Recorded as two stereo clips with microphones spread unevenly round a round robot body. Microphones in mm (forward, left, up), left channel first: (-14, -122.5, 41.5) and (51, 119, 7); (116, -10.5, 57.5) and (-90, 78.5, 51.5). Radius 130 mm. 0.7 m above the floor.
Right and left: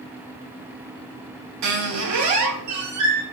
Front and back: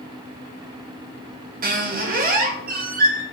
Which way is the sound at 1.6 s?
105° left.